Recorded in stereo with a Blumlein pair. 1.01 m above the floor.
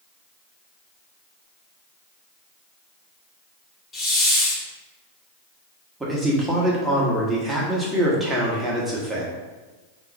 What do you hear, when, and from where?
3.9 s a hiss: 20° left, 1.1 m
6.0 s a man speaking: 5° right, 1.1 m